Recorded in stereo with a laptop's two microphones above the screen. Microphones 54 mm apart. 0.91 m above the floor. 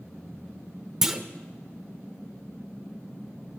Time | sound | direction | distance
1.0 | a clunk | 10° right (ahead or behind) | 0.8 m